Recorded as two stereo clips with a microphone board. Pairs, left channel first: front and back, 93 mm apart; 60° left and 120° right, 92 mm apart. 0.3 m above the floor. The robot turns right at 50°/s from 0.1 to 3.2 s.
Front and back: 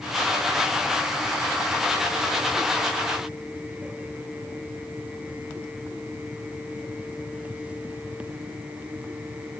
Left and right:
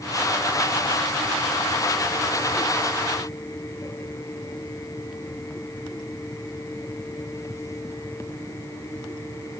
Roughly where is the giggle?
I don't hear a giggle.